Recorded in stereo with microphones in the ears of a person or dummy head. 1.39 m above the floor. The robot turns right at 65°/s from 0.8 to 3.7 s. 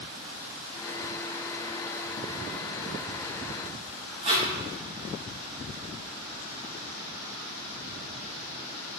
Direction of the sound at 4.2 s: 30° right (ahead or behind).